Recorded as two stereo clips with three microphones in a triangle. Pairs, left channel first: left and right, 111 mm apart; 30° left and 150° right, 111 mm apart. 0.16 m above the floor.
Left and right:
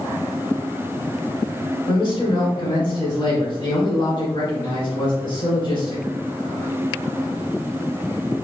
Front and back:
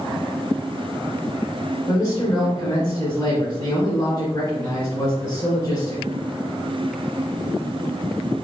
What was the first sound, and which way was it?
A man speaking, 80° left.